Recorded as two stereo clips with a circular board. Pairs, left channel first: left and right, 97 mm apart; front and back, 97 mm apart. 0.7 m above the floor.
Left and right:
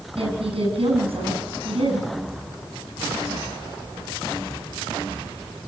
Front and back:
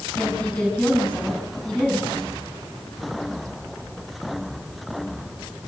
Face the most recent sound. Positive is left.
turn(degrees=-80)